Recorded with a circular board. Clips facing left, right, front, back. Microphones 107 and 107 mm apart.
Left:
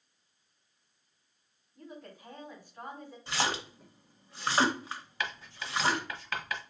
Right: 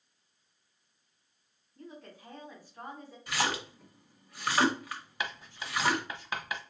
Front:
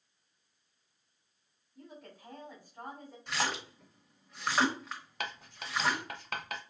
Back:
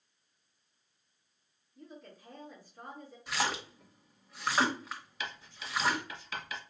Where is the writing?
20° right, 0.8 m.